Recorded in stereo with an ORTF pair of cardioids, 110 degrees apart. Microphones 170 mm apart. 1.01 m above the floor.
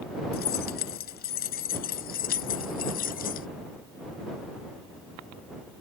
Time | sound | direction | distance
0.3 | keys jangling | 65° left | ?